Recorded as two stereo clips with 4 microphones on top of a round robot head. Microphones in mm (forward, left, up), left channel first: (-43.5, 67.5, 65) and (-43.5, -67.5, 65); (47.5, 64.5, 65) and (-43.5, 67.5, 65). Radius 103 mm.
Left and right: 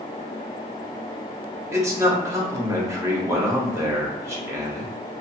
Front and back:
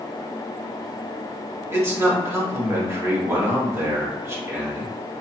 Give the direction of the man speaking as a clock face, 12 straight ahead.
5 o'clock.